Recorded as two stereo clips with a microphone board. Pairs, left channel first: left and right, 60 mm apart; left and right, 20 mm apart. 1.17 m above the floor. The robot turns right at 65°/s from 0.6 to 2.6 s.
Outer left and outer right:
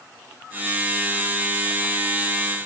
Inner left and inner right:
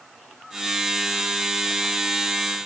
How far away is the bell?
No bell in this recording.